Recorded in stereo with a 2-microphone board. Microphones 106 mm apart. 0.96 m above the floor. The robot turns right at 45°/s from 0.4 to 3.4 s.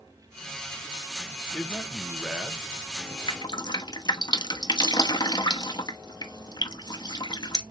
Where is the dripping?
50° left (ahead or behind), 0.7 m; by 7.6 s 45° left (ahead or behind), 0.7 m.